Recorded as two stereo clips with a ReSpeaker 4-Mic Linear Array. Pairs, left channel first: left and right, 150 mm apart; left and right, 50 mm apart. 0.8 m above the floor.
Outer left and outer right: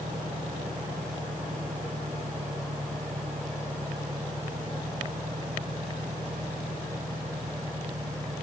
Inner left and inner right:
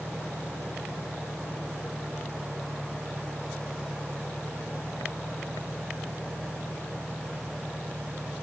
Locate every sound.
0.0 s an engine running: 75° right (ahead or behind)